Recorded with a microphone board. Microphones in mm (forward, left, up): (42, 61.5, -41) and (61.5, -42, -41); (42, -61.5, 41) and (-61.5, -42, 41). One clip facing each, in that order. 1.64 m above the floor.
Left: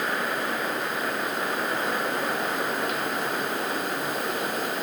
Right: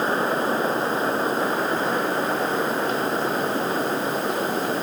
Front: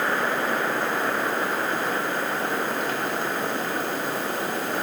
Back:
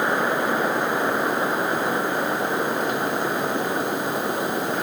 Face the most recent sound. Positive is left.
No sound to turn to.